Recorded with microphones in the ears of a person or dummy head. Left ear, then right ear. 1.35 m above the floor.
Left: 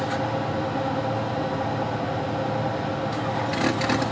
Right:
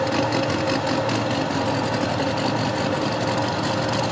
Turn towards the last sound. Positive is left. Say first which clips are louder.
# right 4 dB
turn(degrees=-25)  # may be behind; listen again after turning